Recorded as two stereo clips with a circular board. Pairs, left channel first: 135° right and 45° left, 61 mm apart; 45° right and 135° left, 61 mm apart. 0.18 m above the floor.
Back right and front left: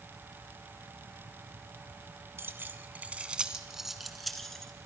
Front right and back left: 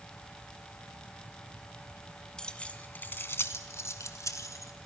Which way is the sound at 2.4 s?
30° left.